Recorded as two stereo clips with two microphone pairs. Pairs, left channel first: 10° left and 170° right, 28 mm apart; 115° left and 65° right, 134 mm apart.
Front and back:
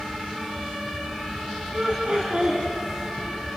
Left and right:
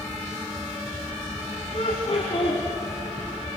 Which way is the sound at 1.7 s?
150° left.